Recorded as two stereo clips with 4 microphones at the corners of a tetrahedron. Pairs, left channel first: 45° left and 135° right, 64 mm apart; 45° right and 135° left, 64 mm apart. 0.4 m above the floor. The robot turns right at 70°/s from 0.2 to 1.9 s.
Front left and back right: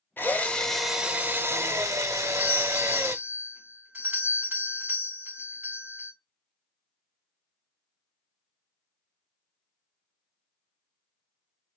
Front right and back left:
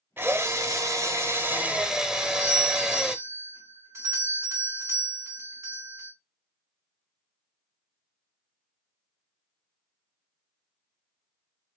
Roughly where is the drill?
Left.